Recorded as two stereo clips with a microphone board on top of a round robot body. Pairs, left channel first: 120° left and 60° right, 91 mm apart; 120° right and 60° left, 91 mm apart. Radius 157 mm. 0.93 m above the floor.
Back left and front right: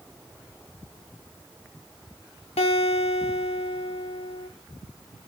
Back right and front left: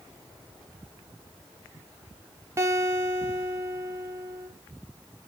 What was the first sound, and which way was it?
A guitar, 120° left.